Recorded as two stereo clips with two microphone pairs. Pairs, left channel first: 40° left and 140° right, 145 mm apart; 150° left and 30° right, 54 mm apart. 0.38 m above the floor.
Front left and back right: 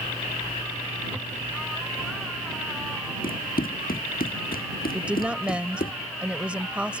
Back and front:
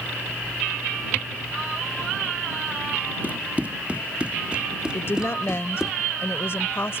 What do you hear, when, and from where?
3.2 s running footsteps: 30° left; by 5.9 s 50° left
4.9 s a woman speaking: 140° left